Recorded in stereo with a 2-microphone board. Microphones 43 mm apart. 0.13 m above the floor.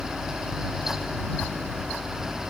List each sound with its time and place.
Only background noise.